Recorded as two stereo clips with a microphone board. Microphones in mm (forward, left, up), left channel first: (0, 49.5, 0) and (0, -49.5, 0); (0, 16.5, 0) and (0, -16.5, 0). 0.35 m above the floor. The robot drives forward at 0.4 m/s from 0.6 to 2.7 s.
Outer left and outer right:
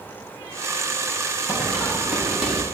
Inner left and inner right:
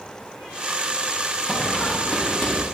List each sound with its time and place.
1.5 s running footsteps: 20° right (ahead or behind), 5.5 m; by 2.6 s 10° right (ahead or behind), 5 m